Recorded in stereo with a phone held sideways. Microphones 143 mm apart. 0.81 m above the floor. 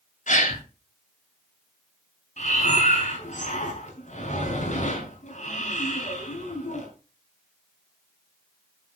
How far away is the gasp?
About 2.5 m.